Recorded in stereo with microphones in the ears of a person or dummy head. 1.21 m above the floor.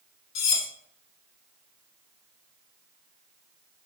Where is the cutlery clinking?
60° left (ahead or behind), 0.6 m.